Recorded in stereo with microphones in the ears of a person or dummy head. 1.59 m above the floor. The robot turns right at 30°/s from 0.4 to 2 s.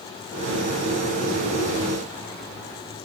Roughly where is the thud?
No thud in this recording.